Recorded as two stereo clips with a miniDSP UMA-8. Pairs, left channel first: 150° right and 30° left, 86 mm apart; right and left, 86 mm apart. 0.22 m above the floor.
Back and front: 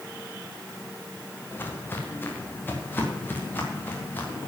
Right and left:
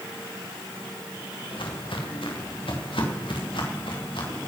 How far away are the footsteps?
About 3.5 m.